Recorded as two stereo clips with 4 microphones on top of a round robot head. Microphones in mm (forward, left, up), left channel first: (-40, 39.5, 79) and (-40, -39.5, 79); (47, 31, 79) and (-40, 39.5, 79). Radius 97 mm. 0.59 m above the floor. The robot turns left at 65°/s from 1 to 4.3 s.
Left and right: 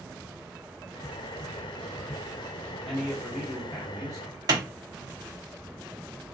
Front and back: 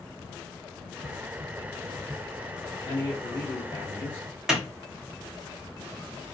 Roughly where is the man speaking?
Ahead.